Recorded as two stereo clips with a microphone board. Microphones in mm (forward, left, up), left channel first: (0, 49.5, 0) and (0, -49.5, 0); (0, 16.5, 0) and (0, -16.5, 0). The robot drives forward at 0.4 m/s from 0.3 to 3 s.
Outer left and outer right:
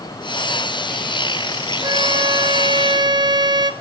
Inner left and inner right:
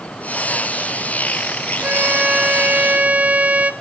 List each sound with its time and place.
1.8 s a violin: 50° right (ahead or behind), 0.8 m; by 3.7 s 45° right (ahead or behind), 0.9 m